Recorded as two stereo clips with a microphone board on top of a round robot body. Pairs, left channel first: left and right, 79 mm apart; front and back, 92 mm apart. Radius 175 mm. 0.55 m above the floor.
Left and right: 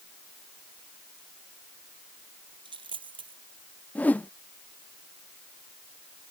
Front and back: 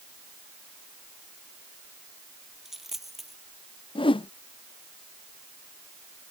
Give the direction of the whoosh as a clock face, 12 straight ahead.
11 o'clock.